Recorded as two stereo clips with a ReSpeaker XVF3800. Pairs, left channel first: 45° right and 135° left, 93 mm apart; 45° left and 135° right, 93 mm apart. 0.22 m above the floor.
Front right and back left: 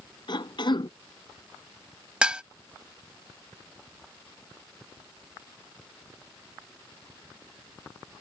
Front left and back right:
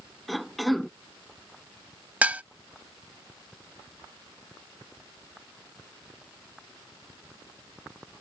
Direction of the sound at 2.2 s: 170° right.